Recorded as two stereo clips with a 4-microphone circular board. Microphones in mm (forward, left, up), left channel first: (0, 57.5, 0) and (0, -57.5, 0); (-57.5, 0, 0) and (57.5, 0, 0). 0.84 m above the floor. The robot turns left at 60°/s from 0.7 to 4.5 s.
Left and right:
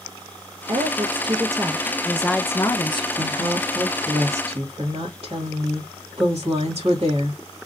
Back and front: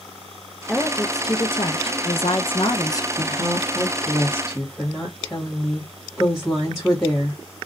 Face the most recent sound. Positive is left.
turn(degrees=-105)